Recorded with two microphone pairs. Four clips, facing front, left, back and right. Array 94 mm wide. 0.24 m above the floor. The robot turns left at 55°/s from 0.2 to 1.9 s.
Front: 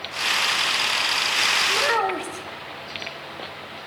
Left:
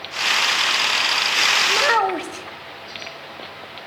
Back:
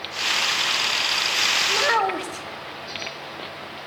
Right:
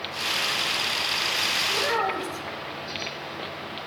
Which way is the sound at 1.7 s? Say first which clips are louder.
Left 6 dB, back 2 dB; 115° left.